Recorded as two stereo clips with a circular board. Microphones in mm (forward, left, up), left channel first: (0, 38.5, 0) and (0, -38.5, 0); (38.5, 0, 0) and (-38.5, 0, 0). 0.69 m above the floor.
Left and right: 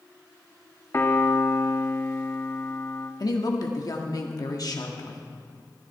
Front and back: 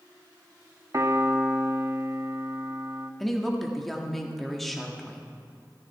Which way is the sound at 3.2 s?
85° left.